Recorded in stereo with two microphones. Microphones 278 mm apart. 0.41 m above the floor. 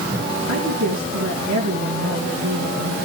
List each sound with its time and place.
0.5 s a woman speaking: 75° right (ahead or behind), 3.5 m